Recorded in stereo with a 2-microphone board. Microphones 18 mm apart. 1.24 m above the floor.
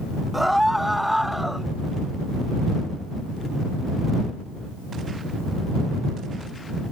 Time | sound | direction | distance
0.3 | a scream | 10° right (ahead or behind) | ?